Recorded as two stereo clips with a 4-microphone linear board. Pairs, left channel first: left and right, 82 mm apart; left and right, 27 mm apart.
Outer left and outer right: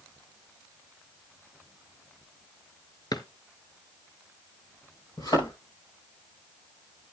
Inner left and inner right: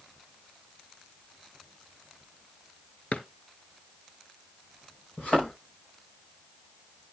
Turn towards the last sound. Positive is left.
turn(degrees=55)  # may be behind; listen again after turning